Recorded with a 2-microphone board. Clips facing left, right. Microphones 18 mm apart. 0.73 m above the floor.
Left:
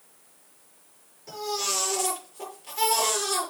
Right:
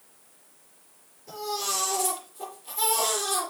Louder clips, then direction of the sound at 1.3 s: Left 1 dB; 45° left (ahead or behind).